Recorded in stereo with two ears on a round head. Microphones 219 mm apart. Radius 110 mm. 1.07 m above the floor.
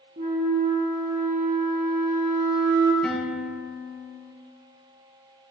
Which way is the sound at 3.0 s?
5° left (ahead or behind).